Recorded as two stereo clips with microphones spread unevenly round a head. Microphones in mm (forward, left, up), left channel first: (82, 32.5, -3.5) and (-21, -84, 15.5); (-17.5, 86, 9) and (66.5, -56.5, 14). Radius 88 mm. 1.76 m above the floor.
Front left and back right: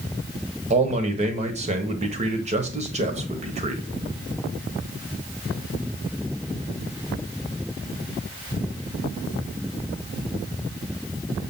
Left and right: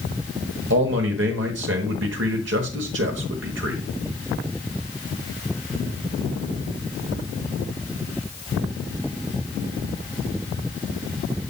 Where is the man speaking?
90° right, 1.3 m.